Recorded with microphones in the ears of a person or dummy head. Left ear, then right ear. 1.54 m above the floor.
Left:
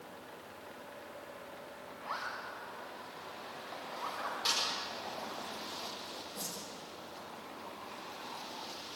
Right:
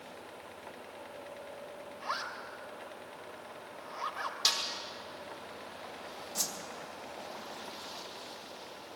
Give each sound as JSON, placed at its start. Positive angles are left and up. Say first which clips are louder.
{"t": 2.0, "sound": "a zipper", "louder": "right 2 dB", "side_deg": -55, "distance_m": 2.5}
{"t": 4.5, "sound": "a snare drum", "louder": "right 3 dB", "side_deg": -50, "distance_m": 5.0}
{"t": 6.3, "sound": "a whoosh", "louder": "right 9 dB", "side_deg": -65, "distance_m": 2.5}